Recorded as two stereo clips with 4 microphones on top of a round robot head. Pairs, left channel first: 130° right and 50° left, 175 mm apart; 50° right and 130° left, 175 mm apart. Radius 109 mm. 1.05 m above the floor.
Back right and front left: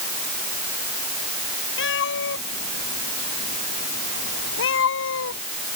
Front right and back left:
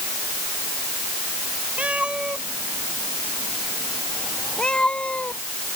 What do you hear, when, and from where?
1.8 s a cat meowing: 145° right; by 5.4 s 130° right